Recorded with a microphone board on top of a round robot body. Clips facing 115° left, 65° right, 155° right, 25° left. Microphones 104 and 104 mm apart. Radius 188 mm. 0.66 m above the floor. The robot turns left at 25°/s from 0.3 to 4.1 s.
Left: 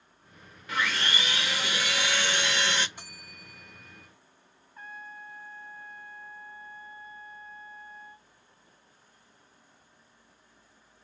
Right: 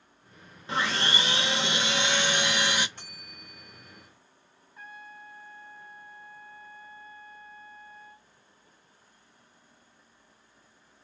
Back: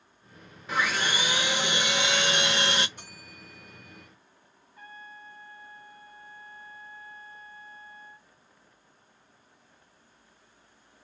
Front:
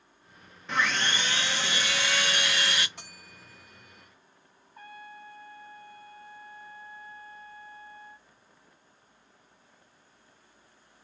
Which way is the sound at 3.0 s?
35° left.